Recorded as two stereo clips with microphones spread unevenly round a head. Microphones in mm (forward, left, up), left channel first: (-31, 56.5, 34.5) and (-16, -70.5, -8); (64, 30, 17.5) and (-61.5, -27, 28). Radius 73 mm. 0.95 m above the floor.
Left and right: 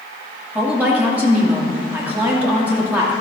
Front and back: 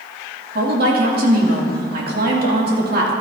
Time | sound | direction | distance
0.6 | a woman speaking | 155° right | 2 m